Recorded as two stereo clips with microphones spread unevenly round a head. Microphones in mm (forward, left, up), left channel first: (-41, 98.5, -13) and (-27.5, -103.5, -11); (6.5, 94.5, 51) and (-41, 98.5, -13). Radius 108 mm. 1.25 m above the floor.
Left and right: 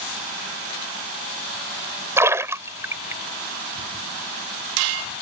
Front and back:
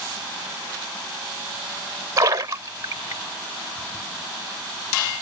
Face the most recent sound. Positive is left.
turn(degrees=-165)